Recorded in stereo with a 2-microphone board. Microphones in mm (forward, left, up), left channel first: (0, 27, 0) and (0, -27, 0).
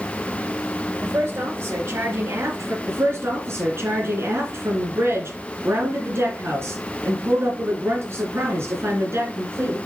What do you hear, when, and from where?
1.0 s a woman speaking: 55° right (ahead or behind), 5.5 m; by 2.8 s 70° right (ahead or behind), 4.5 m
2.9 s a woman speaking: 55° right (ahead or behind), 8 m